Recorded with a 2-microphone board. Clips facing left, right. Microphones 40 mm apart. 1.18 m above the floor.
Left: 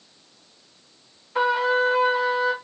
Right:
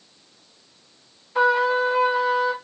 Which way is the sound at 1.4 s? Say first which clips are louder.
Right 2 dB; 10° left (ahead or behind).